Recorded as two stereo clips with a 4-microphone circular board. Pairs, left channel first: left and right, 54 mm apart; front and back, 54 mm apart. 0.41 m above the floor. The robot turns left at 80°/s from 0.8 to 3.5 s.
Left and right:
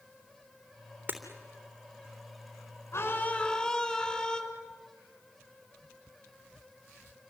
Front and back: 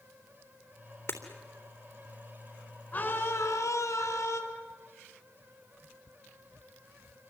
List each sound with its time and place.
1.1 s breaking glass: 35° right, 3.5 m; by 1.2 s 45° right, 3.5 m
2.9 s a scream: 55° left, 5 m; by 4.4 s 10° left, 5 m